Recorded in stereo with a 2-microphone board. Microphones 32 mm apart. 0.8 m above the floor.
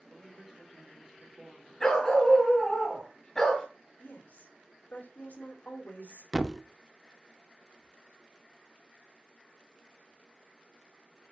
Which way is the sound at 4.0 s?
60° left (ahead or behind).